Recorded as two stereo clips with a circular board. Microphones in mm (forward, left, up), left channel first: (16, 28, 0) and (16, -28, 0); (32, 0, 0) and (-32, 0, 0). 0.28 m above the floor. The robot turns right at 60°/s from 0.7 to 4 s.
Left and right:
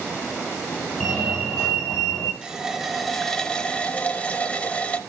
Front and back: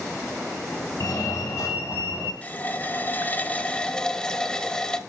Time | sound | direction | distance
1.0 | a fire alarm | 20° right | 4 m
2.4 | a running tap | 30° right | 0.7 m